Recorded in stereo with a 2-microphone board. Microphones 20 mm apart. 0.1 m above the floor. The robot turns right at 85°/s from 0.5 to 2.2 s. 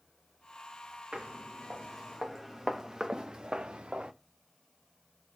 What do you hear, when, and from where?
1.1 s footsteps: 80° right, 1.6 m; by 4.1 s 85° right, 0.7 m